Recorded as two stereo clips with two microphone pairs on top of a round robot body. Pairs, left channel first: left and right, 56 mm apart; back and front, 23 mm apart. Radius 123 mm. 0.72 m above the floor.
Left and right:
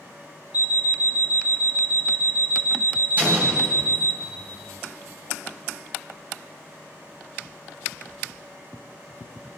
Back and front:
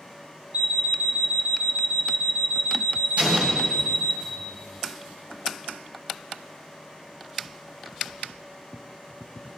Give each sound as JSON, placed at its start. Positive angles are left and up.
{"t": 0.5, "sound": "an alarm clock", "azimuth_deg": -30, "distance_m": 1.0}
{"t": 3.2, "sound": "an explosion", "azimuth_deg": -30, "distance_m": 3.0}